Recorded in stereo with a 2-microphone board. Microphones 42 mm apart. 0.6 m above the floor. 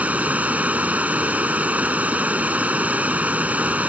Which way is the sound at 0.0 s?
35° right (ahead or behind).